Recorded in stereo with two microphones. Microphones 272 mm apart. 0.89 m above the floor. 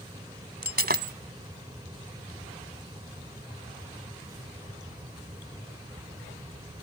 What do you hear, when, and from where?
0.6 s breaking glass: 35° right (ahead or behind)